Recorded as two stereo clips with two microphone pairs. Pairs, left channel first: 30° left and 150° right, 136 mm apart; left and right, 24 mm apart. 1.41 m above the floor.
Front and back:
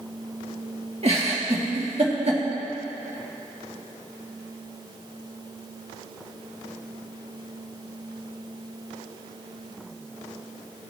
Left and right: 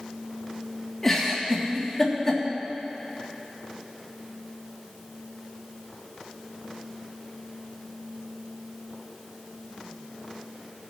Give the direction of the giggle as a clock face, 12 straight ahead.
6 o'clock.